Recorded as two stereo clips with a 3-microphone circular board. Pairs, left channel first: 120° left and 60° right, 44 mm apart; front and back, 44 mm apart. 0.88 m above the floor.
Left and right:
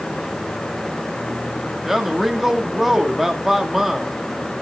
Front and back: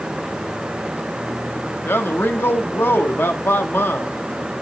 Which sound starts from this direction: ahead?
A man speaking, at 1.9 s.